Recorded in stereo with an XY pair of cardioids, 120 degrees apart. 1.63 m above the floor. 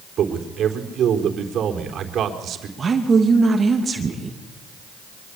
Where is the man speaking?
55° right, 4 m.